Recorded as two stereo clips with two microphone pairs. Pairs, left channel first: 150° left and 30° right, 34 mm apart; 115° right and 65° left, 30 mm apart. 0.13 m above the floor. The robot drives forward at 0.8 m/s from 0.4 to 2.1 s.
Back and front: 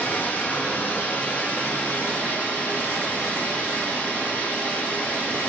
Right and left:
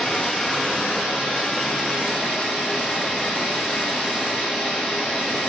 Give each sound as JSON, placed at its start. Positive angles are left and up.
{"t": 0.0, "sound": "running water", "azimuth_deg": -170, "distance_m": 6.0}